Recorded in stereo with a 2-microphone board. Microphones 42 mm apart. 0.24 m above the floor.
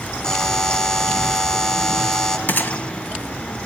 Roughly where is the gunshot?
Left.